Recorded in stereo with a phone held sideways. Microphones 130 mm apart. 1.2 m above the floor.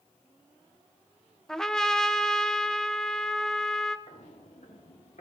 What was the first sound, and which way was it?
A trumpet, 5° left (ahead or behind).